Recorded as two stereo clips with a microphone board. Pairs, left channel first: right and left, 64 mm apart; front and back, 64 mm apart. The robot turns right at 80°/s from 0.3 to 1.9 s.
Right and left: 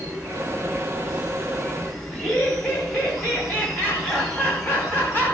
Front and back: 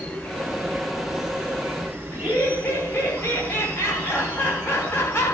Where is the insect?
45° left, 1.8 m; by 5.3 s 170° left, 1.8 m.